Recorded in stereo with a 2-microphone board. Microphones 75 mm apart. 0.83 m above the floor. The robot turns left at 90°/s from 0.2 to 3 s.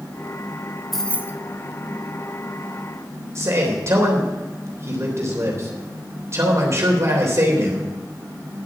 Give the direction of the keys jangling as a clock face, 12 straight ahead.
6 o'clock.